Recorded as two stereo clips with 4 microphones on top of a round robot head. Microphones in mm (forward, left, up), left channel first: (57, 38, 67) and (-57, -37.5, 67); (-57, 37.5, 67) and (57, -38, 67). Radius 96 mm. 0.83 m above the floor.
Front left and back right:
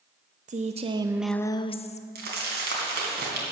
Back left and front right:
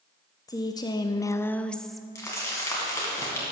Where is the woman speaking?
155° right, 0.8 m; by 2.0 s 55° left, 0.8 m.